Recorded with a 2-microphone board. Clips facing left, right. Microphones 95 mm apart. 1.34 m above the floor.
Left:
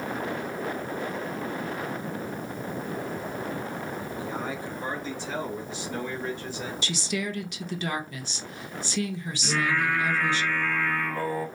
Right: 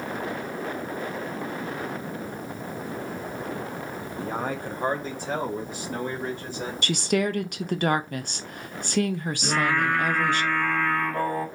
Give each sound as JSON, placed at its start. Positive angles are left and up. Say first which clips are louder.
{"t": 4.2, "sound": "a man speaking", "louder": "right 6 dB", "side_deg": -50, "distance_m": 0.7}
{"t": 6.8, "sound": "a woman speaking", "louder": "right 8 dB", "side_deg": -55, "distance_m": 0.5}
{"t": 9.4, "sound": "singing", "louder": "right 2 dB", "side_deg": -55, "distance_m": 2.5}